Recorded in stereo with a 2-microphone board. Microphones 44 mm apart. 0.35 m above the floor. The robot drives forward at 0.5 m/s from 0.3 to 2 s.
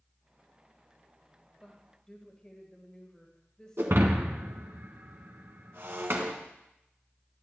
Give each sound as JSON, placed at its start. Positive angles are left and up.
{"t": 1.6, "sound": "a woman speaking", "side_deg": 20, "distance_m": 1.1}
{"t": 3.8, "sound": "breaking glass", "side_deg": -65, "distance_m": 1.4}